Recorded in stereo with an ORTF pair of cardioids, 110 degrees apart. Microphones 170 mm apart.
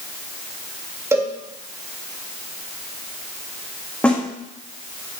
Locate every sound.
1.1 s a cowbell: 15° right, 3 m
4.0 s a snare drum: 5° left, 2.5 m